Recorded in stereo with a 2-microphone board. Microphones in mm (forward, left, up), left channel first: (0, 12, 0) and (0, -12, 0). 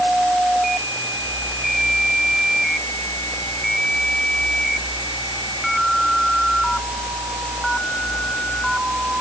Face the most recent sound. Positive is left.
No sound to turn to.